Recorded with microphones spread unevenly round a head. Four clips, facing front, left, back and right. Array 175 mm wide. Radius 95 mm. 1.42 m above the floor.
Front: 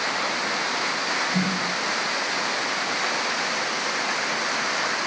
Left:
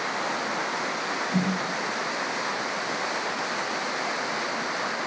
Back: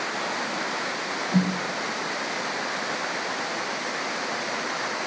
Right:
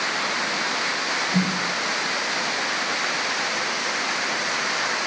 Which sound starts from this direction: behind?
A snare drum, at 1.3 s.